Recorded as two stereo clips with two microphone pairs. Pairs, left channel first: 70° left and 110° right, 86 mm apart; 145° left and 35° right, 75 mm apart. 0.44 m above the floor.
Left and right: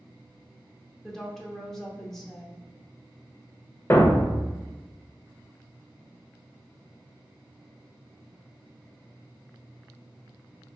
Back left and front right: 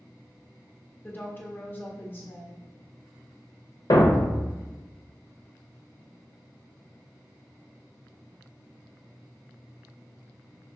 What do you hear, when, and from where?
1.0 s a woman speaking: 145° left, 0.8 m
3.9 s a thud: 125° left, 0.5 m